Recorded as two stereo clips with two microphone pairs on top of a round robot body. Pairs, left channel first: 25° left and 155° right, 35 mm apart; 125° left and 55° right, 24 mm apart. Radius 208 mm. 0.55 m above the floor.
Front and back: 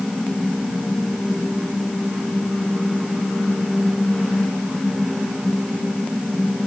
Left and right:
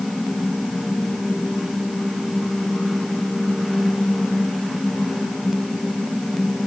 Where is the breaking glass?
No breaking glass in this recording.